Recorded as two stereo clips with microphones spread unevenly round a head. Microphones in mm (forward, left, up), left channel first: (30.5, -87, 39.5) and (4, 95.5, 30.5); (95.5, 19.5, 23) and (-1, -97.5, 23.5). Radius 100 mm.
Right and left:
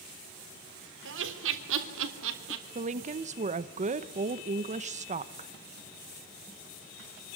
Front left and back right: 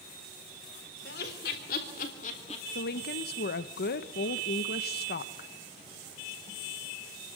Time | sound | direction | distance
1.1 | laughter | 85° left | 3.5 m
2.8 | a woman speaking | 50° left | 1.0 m